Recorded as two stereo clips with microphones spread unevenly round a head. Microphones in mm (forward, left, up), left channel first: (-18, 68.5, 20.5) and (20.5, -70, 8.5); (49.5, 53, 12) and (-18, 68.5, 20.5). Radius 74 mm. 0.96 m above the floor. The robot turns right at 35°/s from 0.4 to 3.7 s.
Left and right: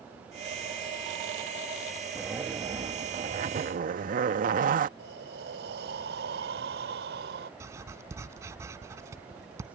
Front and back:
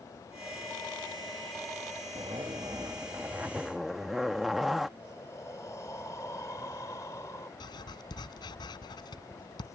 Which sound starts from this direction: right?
Breathing, at 5.0 s.